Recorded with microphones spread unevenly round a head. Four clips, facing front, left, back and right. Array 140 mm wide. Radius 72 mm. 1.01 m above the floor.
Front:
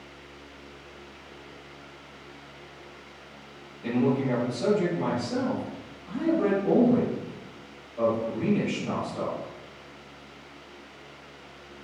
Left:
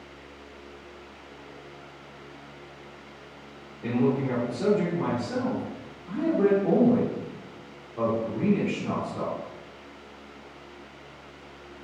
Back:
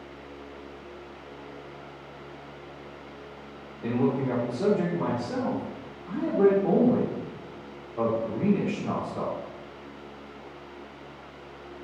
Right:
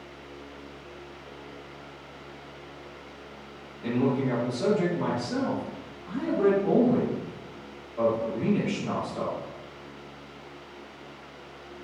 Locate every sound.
3.8 s a man speaking: 155° left, 2.5 m